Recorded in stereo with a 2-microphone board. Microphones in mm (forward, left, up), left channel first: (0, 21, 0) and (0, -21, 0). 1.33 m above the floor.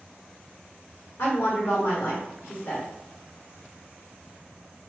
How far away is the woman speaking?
About 1.4 m.